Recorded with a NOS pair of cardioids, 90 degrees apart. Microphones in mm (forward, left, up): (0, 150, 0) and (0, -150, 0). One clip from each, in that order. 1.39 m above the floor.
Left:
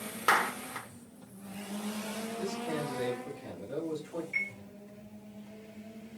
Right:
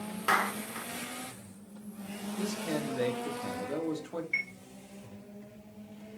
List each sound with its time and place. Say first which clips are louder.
0.3 s a clap: left 1 dB; 10° left, 0.9 m
2.4 s a man speaking: right 2 dB; 55° right, 1.7 m
4.3 s a chime: right 1 dB; 45° right, 1.9 m